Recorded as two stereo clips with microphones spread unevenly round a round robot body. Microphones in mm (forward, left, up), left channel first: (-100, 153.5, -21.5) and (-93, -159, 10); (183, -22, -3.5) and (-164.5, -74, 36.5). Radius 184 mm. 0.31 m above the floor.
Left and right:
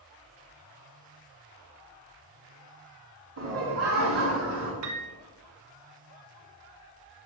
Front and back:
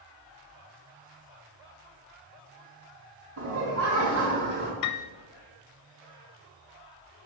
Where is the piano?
35° right, 0.7 m.